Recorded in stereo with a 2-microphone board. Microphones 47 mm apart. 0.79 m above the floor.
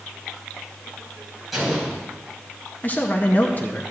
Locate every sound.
1.5 s an explosion: centre (ahead or behind), 4 m
2.8 s a man speaking: 35° left (ahead or behind), 0.6 m